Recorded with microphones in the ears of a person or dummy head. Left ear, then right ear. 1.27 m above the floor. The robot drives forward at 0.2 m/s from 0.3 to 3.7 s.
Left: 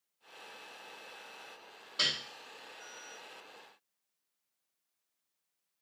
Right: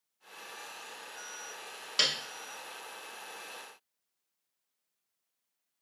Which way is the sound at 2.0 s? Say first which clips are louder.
Right 3 dB; 75° right (ahead or behind).